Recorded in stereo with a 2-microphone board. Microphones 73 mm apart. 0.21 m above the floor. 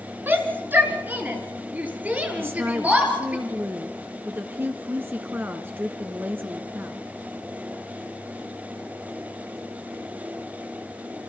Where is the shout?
30° right (ahead or behind), 3 m; by 3.4 s 20° right (ahead or behind), 5 m.